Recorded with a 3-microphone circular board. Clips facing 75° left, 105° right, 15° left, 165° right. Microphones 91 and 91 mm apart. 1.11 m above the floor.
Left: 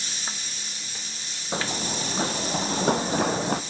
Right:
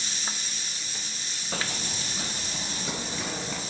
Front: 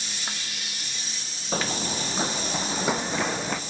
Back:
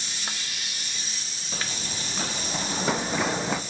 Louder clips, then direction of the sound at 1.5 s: Left 5 dB, front 7 dB; 15° left.